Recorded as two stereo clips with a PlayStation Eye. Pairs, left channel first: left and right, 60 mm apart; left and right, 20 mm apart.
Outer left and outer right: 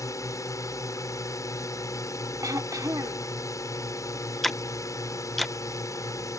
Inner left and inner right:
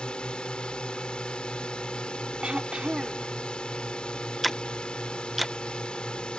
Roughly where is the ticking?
Centre.